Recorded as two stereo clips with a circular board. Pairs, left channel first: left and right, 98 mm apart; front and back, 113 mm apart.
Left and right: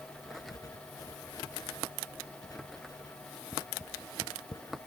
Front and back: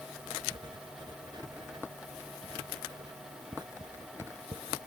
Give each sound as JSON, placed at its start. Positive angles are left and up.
{"t": 0.2, "sound": "writing", "azimuth_deg": 140}